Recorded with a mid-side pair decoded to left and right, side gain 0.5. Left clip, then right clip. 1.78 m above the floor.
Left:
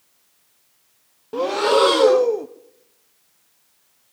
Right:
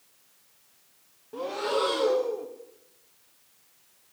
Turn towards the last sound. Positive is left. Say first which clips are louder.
# left 11 dB
turn(degrees=60)